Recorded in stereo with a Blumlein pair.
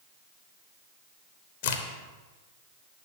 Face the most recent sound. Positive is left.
turn(degrees=55)